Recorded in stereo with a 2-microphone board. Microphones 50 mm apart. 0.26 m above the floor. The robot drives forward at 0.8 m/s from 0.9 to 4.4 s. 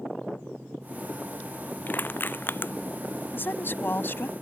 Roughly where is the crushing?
Left.